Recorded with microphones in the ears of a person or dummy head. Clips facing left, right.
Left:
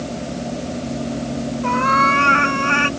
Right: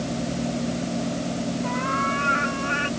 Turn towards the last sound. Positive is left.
turn(degrees=70)  # may be behind; listen again after turning